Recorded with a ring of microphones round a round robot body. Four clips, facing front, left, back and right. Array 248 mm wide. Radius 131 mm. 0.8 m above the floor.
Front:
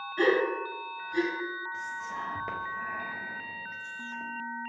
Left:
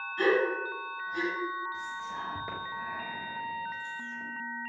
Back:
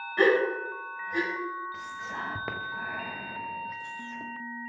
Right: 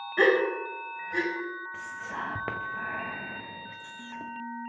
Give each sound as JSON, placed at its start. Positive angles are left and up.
{"t": 0.2, "sound": "a gasp", "azimuth_deg": -120, "distance_m": 3.5}
{"t": 1.7, "sound": "whispering", "azimuth_deg": -120, "distance_m": 0.7}